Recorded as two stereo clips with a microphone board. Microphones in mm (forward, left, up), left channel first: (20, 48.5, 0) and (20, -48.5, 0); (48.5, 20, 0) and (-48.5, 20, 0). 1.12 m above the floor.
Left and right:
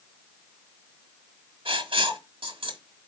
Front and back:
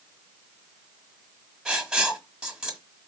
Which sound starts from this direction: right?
Writing, at 1.6 s.